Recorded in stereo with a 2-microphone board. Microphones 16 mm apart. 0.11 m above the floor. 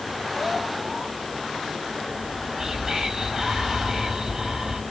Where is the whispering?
35° right (ahead or behind), 3.5 m.